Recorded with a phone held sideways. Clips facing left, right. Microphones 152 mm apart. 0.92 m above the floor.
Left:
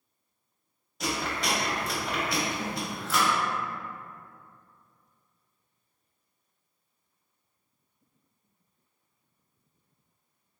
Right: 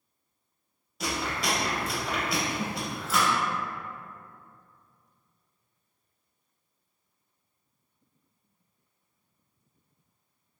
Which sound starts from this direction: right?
A snare drum, at 2.6 s.